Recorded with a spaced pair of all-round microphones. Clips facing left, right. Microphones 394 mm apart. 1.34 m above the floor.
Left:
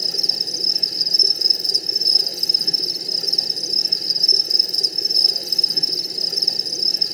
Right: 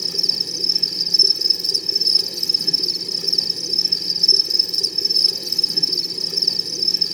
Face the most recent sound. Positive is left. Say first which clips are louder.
# right 1 dB
turn(degrees=-15)  # may be behind; listen again after turning